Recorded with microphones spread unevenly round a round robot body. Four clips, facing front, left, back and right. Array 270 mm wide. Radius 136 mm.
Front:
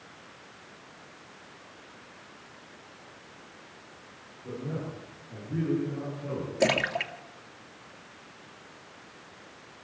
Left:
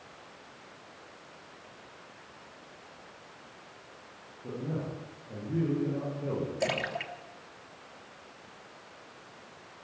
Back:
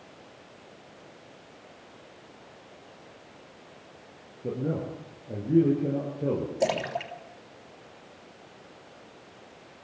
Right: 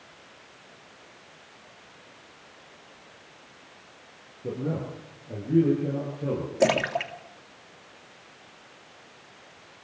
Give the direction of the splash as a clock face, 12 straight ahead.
2 o'clock.